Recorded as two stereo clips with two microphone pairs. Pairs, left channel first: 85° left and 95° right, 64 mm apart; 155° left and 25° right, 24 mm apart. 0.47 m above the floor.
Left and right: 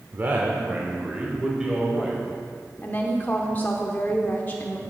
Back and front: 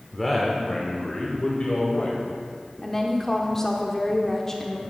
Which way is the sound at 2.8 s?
105° left.